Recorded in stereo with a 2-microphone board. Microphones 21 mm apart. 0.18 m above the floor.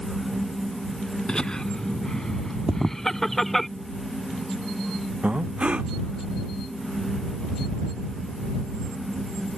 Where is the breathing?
85° right.